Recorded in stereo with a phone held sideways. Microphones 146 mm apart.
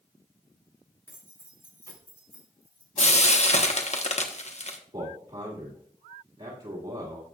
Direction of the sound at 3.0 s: 50° left (ahead or behind).